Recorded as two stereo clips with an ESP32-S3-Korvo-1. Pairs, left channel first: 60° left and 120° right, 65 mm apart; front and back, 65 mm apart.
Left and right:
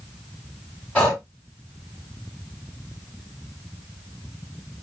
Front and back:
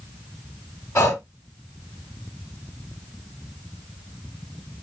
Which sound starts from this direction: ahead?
Breathing, at 0.9 s.